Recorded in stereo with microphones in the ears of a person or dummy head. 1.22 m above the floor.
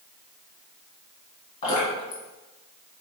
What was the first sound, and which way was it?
Dripping, 35° left (ahead or behind).